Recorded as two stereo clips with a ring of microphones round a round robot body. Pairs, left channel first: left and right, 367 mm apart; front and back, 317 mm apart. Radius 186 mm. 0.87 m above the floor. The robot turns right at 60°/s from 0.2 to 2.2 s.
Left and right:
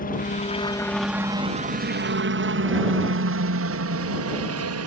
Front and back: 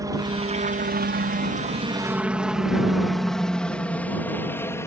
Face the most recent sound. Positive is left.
turn(degrees=-80)